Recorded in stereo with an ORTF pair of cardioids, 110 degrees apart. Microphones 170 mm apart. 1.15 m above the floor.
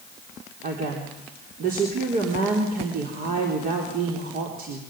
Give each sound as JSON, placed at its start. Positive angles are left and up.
{"t": 0.6, "sound": "a woman speaking", "azimuth_deg": -60, "distance_m": 4.0}